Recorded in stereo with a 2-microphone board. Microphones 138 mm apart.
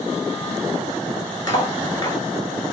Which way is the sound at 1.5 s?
30° left (ahead or behind).